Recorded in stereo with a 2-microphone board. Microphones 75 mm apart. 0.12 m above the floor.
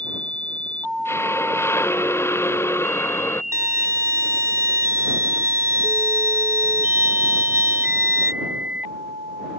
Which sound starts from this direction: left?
A hiss, at 1.1 s.